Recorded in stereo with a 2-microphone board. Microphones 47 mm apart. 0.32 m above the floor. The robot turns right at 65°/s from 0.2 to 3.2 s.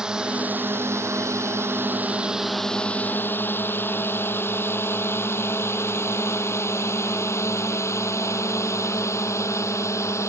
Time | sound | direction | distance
0.0 | a drone | 15° right (ahead or behind) | ?